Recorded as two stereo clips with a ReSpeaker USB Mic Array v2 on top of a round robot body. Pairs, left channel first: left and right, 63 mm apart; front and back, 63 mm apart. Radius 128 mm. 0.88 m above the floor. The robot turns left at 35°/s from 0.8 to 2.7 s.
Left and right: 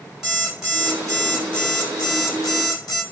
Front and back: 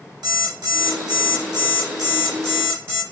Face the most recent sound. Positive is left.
turn(degrees=120)